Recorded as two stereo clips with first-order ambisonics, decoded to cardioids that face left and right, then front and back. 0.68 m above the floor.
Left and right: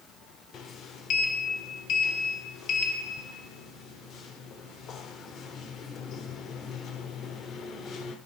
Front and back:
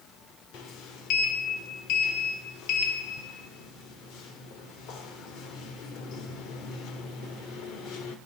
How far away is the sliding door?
About 1.4 m.